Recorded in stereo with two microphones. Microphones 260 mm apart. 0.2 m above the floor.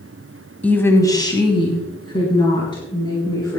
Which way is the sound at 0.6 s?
5° left (ahead or behind).